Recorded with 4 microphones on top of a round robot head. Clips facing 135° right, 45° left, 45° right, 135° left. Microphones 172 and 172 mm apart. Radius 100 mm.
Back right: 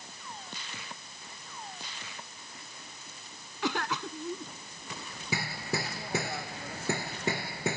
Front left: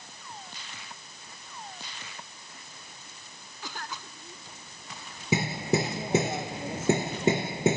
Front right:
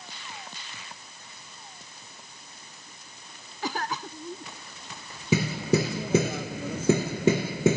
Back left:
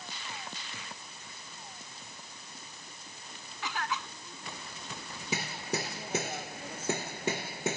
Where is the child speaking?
I don't hear a child speaking.